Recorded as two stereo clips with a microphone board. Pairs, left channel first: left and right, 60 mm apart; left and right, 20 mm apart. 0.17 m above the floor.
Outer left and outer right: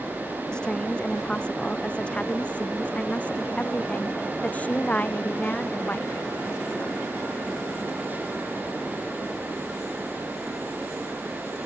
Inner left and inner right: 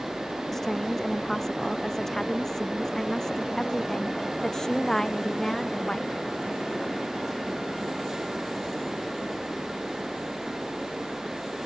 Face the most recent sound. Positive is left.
turn(degrees=30)  # may be behind; listen again after turning